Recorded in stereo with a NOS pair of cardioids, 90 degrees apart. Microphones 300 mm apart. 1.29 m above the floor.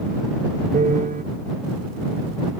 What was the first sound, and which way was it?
A piano, 25° right.